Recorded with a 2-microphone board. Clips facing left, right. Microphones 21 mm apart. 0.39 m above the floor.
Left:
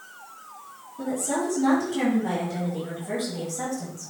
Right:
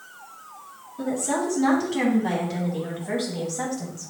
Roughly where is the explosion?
No explosion in this recording.